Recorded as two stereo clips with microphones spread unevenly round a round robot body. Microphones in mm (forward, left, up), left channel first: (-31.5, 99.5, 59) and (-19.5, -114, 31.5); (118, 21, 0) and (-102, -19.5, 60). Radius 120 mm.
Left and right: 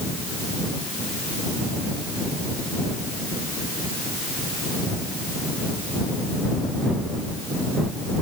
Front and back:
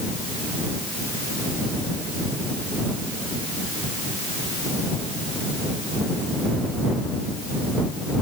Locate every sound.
Only background noise.